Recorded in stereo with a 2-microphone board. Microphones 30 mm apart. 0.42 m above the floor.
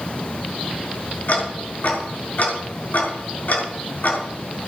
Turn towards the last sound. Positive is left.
turn(degrees=60)  # may be behind; listen again after turning